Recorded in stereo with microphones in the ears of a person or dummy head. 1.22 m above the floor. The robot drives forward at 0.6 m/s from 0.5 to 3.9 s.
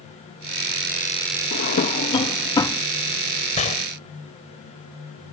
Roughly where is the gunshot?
Left.